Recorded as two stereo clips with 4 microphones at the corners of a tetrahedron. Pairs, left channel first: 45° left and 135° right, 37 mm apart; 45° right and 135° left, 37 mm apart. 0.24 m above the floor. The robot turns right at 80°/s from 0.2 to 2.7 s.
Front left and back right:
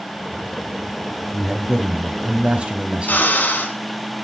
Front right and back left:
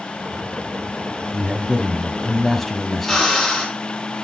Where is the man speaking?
135° left, 1.8 m; by 3.2 s 120° right, 1.8 m.